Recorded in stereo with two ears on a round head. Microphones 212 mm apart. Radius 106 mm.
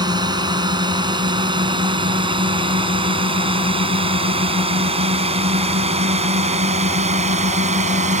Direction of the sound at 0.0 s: 20° right (ahead or behind).